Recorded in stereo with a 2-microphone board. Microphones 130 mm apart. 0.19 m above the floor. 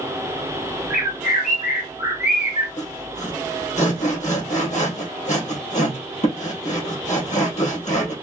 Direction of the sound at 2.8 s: 60° left (ahead or behind).